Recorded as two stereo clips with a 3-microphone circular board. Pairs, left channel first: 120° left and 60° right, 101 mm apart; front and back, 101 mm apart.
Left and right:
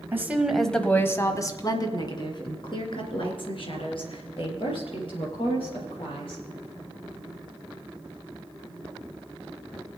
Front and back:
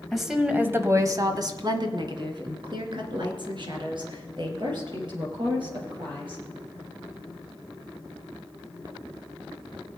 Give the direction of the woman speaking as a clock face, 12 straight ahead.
3 o'clock.